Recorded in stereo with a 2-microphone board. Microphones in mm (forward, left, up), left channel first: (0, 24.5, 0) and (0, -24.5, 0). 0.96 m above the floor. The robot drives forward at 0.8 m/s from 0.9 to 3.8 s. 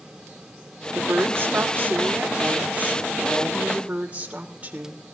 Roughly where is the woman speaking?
Right.